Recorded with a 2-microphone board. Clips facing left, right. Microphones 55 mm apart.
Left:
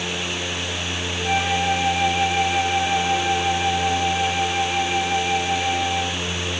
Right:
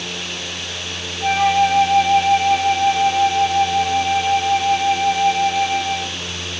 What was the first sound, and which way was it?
A flute, 40° right (ahead or behind).